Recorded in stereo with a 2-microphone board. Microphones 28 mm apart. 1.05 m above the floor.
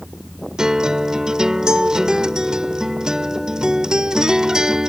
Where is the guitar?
30° right (ahead or behind).